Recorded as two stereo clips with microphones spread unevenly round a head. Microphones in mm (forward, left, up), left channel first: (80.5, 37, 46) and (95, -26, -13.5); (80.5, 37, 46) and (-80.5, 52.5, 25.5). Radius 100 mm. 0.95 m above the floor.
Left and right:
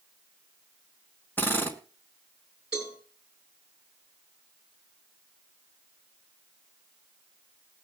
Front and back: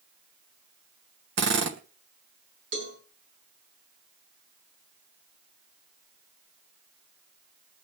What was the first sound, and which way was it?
A drill, 175° left.